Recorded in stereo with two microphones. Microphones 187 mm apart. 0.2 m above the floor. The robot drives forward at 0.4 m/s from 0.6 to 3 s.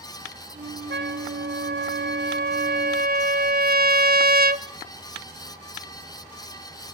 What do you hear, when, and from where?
0.9 s a trumpet: 70° right (ahead or behind), 0.9 m; by 4.7 s 55° right (ahead or behind), 1.1 m